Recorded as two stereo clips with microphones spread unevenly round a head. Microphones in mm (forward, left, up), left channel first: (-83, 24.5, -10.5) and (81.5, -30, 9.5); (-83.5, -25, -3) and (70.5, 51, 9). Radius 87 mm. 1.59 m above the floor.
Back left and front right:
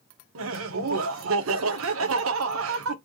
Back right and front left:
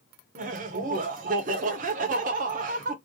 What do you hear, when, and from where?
0.3 s laughter: 20° right, 0.8 m